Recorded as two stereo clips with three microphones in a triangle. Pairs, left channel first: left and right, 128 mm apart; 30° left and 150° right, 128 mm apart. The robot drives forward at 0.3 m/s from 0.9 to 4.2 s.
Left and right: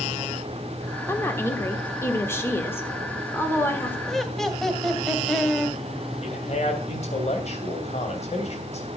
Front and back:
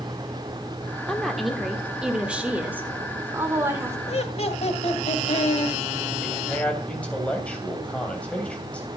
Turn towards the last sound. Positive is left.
turn(degrees=110)